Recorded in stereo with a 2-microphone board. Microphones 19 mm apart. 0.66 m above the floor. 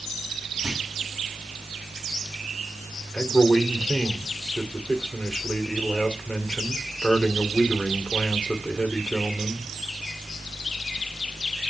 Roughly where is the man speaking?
Left.